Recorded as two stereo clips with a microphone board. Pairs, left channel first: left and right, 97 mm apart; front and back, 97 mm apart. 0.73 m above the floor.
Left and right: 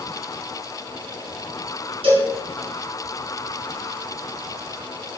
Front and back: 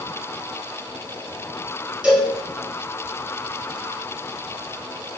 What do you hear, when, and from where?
2.0 s a cowbell: 100° right, 2.5 m